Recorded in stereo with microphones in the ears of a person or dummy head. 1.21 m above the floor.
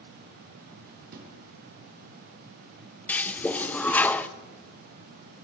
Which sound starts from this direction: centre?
A toilet flushing, at 3.1 s.